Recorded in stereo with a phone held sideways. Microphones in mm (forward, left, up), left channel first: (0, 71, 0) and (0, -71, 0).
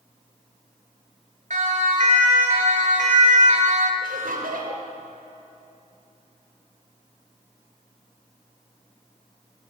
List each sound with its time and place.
1.5 s a siren: 60° right (ahead or behind), 5 m; by 3.9 s 55° right (ahead or behind), 2.5 m
4.0 s laughter: 85° right, 6.5 m